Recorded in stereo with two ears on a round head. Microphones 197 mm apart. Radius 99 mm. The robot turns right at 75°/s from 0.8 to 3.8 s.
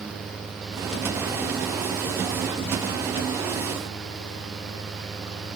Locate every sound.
Only background noise.